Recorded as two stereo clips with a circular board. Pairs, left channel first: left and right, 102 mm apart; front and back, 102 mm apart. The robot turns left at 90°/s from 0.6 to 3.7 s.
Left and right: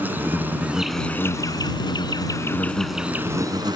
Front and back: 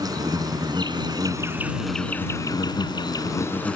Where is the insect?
155° right; by 3.8 s 75° right.